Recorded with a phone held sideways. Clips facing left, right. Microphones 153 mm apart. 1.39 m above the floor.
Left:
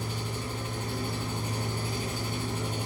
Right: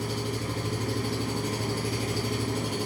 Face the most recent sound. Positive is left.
turn(degrees=-75)  # may be behind; listen again after turning